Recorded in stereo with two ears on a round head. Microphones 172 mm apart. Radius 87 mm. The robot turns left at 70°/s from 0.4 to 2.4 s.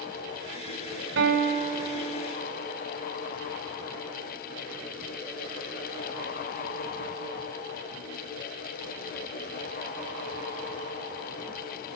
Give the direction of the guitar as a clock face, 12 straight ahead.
4 o'clock.